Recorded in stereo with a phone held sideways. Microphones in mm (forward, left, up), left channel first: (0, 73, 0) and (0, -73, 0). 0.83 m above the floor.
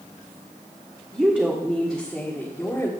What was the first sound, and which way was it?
A woman speaking, 15° right (ahead or behind).